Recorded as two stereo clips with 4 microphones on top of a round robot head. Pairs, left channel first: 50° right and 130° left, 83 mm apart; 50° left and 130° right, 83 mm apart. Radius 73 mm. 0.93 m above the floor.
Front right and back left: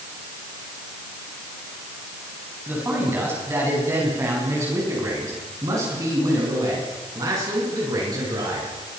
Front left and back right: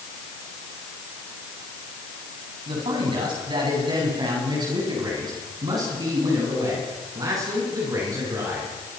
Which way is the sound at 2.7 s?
160° right.